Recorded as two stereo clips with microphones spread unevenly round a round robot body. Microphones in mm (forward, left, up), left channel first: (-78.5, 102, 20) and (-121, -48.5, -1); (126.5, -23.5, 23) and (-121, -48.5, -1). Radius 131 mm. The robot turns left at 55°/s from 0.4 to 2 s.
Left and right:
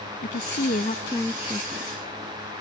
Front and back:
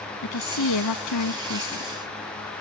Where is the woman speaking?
35° left; by 1.9 s 45° right.